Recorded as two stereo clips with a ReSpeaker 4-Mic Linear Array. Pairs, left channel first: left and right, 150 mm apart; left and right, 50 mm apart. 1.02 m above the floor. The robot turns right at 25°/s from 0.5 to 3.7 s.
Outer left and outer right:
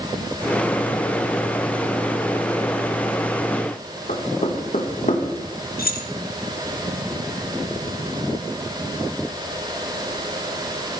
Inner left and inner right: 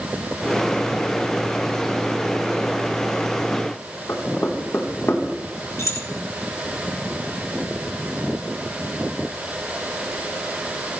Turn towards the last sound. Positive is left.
turn(degrees=75)  # may be behind; listen again after turning